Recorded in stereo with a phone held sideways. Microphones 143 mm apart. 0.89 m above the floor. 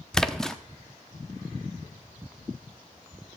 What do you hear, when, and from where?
0.1 s a splash: 5° left (ahead or behind), 0.6 m